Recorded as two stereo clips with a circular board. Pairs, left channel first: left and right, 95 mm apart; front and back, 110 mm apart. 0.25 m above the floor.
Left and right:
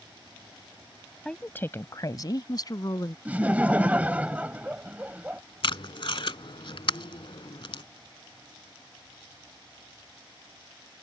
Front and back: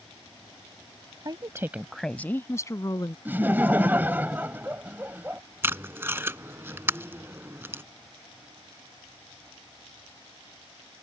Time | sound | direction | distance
1.2 | a woman speaking | 165° left | ?
3.2 | laughter | 140° right | ?
5.6 | tape being pulled | 110° left | ?